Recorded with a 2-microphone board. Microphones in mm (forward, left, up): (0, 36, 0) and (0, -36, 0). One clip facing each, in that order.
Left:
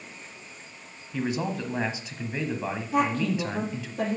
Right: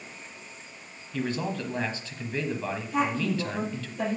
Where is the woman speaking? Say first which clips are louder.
Left 2 dB; 50° left (ahead or behind), 4.5 m.